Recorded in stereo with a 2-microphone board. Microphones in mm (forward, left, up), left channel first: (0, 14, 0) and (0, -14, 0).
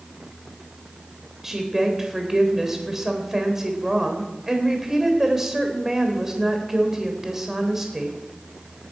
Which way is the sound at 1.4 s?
10° right (ahead or behind).